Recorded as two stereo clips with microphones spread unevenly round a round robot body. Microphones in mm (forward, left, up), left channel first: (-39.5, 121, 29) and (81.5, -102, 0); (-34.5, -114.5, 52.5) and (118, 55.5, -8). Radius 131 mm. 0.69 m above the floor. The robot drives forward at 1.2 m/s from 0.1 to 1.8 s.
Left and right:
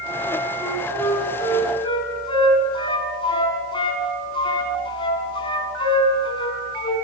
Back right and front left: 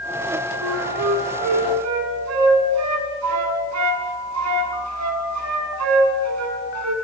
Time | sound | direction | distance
0.6 | a flute | 35° left | 6 m